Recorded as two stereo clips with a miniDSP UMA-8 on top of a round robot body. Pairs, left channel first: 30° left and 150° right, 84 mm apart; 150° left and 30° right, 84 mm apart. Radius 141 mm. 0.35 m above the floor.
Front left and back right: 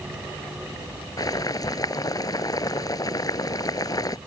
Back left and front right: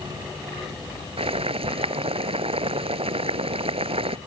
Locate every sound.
1.2 s boiling: 20° right